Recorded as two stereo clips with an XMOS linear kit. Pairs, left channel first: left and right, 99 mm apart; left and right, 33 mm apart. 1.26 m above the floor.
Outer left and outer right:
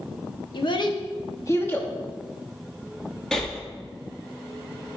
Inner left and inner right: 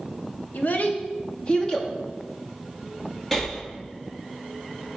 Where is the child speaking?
55° left (ahead or behind), 1.0 m; by 1.9 s 15° left (ahead or behind), 1.0 m.